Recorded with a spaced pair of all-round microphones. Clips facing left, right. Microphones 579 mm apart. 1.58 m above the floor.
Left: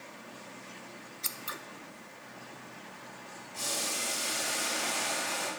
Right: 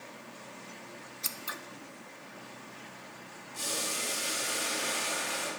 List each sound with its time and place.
1.2 s scissors: 15° right (ahead or behind), 0.6 m
3.5 s boiling: 75° left (ahead or behind), 6 m